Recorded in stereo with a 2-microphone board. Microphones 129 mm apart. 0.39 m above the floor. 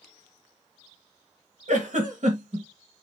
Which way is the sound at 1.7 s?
75° right (ahead or behind).